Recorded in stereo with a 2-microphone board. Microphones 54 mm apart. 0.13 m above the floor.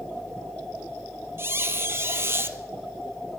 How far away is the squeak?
About 1.0 m.